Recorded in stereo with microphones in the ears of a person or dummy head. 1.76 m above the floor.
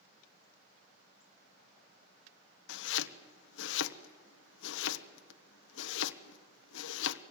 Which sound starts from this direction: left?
Chopping, at 2.7 s.